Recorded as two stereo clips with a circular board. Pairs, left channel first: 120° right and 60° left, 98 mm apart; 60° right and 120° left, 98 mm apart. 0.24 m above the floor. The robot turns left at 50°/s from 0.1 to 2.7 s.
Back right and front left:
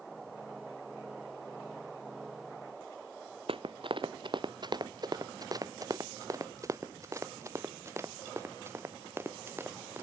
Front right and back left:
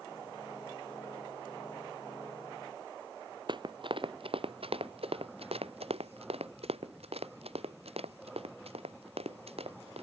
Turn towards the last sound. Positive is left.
turn(degrees=125)